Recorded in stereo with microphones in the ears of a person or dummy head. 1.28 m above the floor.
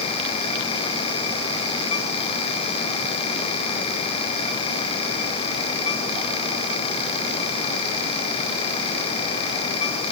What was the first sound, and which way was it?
Only background noise.